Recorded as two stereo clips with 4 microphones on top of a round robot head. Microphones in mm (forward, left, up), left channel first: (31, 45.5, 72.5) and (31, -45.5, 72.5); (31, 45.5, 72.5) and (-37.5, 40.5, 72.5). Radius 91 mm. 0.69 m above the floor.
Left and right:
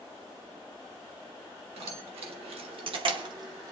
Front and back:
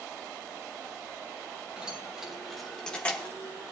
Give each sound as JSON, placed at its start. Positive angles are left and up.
{"t": 1.8, "sound": "keys jangling", "azimuth_deg": -100, "distance_m": 2.5}